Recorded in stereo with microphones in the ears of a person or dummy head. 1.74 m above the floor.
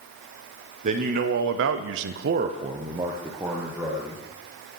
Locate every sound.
0.8 s a man speaking: 45° right (ahead or behind), 1.3 m; by 4.2 s centre (ahead or behind), 2 m